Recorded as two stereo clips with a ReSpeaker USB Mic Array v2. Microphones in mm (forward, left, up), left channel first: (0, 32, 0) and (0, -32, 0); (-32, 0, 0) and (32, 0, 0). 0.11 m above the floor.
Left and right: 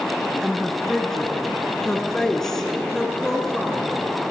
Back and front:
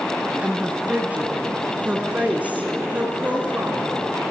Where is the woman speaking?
15° left, 1.4 m.